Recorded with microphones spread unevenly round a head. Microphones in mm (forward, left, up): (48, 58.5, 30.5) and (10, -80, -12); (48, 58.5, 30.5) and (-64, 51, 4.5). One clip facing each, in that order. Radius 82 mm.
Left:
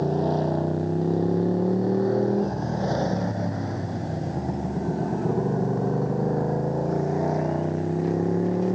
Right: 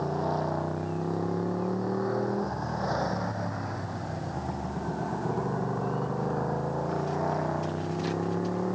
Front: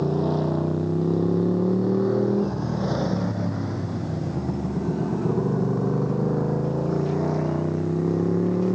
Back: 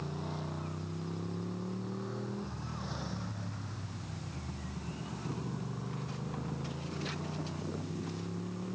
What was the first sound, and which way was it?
A motorcycle, 20° left.